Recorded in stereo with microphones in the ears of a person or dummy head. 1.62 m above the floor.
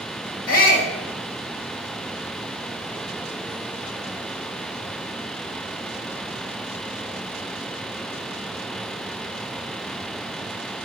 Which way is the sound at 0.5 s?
45° left (ahead or behind).